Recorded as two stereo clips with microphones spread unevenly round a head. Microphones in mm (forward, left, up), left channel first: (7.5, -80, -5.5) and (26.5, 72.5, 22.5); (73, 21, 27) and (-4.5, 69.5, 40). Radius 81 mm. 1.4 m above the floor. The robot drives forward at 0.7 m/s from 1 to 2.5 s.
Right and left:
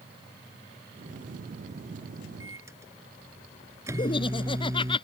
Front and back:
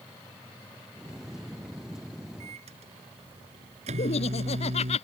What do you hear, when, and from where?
2.4 s a microwave: 155° left
4.0 s laughter: 35° right